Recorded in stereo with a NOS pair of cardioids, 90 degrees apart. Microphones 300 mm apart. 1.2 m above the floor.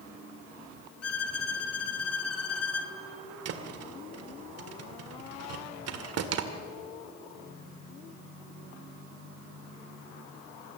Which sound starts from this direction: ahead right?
A thud, at 3.5 s.